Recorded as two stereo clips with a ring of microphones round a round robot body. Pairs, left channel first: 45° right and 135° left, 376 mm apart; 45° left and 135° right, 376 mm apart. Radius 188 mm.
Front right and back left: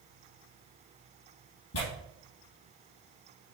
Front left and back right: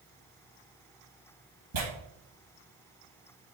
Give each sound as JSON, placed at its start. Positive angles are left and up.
{"t": 1.7, "sound": "tearing paper", "azimuth_deg": -105, "distance_m": 3.0}